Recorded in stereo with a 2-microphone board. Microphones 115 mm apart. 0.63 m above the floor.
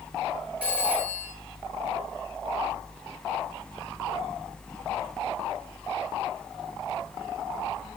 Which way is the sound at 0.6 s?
10° right (ahead or behind).